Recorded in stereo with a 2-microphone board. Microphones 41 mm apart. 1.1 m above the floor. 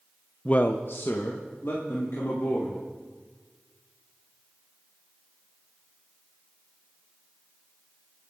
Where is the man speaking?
25° left (ahead or behind), 0.6 m; by 2.8 s 75° left (ahead or behind), 4 m.